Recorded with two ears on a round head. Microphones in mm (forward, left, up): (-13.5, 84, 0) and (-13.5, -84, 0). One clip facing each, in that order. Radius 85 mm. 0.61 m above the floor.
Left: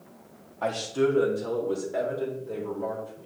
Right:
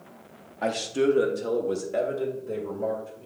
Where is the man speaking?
20° right (ahead or behind), 0.8 m; by 3.3 s 30° right (ahead or behind), 2.5 m.